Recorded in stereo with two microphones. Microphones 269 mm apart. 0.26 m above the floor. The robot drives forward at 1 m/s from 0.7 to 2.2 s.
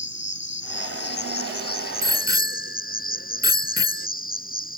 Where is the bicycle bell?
40° left (ahead or behind); by 4.1 s 45° left (ahead or behind).